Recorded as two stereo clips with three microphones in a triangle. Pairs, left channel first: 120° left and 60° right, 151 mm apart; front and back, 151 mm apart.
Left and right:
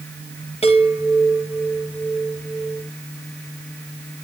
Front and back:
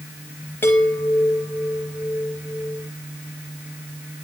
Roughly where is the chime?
Left.